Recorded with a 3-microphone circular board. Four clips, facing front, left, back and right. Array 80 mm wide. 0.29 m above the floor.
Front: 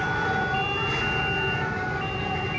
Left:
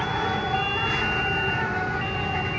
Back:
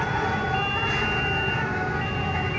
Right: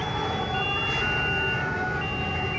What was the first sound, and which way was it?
An insect, 130° left.